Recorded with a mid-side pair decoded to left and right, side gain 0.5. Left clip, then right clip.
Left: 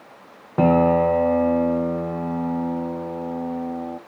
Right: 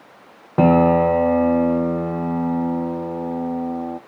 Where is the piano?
25° right, 0.6 m.